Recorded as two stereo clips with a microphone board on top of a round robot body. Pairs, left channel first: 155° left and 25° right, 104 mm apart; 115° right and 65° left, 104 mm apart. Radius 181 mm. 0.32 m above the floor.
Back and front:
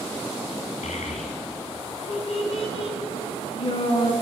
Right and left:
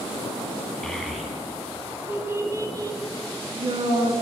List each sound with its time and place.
0.8 s a child speaking: 165° left, 2.5 m; by 4.1 s 110° left, 3.5 m